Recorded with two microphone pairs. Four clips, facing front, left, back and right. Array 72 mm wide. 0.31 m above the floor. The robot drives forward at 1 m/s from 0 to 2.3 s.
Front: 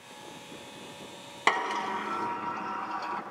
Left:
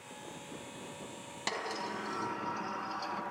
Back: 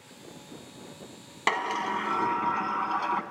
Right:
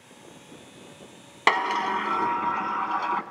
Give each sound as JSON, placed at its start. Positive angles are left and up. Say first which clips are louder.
{"t": 1.5, "sound": "a sliding door", "louder": "right 15 dB, even", "azimuth_deg": -85, "distance_m": 1.4}